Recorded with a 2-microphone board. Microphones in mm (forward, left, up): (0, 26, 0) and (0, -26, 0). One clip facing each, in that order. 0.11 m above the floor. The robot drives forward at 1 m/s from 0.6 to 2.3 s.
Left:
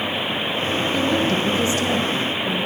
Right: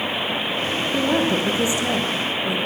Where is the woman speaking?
20° right (ahead or behind), 5 m; by 2.6 s 15° right (ahead or behind), 6 m.